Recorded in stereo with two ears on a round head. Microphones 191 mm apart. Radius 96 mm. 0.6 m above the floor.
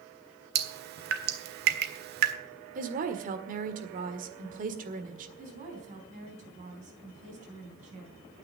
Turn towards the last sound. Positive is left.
turn(degrees=-35)  # may be behind; listen again after turning